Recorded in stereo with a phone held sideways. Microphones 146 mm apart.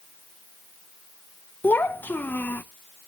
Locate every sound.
1.6 s a child speaking: 10° left (ahead or behind), 0.5 m